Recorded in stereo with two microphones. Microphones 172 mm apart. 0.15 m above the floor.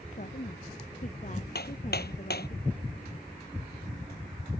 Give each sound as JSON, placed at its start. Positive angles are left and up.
{"t": 0.1, "sound": "a woman speaking", "side_deg": 45}
{"t": 1.6, "sound": "hammering", "side_deg": 70}